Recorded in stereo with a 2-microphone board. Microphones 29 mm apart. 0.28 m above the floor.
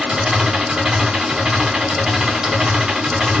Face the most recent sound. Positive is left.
turn(degrees=-25)  # may be behind; listen again after turning